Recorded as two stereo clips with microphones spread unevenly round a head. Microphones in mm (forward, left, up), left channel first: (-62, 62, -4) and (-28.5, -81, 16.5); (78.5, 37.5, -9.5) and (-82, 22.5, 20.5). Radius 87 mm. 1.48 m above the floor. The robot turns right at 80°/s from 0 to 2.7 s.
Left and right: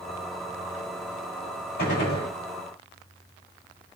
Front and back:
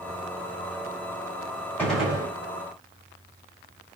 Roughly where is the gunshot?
Left.